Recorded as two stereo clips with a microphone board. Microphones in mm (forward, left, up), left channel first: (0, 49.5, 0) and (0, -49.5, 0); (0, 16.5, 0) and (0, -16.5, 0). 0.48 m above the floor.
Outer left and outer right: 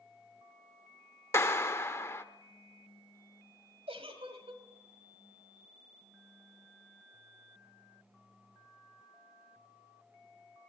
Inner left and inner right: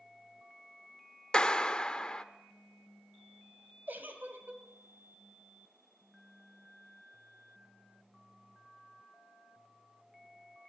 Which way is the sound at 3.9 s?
75° right (ahead or behind).